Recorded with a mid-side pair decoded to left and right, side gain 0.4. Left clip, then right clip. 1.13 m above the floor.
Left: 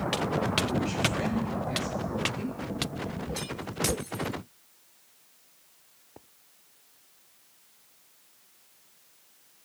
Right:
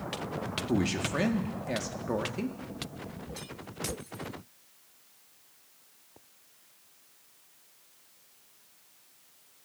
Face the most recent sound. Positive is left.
turn(degrees=-60)